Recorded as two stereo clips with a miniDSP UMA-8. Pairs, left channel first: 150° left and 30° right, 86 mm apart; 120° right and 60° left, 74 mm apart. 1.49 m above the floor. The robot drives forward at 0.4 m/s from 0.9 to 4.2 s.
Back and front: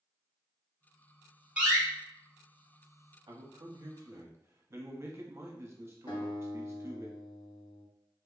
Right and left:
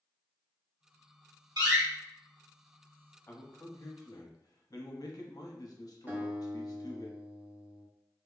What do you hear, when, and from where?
1.6 s a door slam: 45° left, 1.7 m; by 1.8 s 50° left, 1.7 m
3.3 s a man speaking: 60° right, 0.8 m; by 7.1 s 90° right, 0.7 m
6.1 s a guitar: 125° left, 1.2 m